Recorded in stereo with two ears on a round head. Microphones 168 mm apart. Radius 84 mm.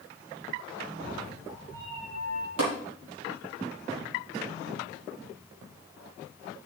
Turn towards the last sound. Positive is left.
turn(degrees=-85)